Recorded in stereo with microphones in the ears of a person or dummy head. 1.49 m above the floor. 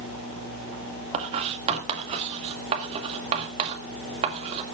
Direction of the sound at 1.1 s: 30° right (ahead or behind).